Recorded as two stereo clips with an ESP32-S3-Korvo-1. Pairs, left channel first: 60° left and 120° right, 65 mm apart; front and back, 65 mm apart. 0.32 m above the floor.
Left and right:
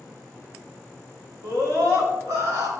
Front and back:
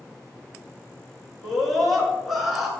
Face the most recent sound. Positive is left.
turn(degrees=-95)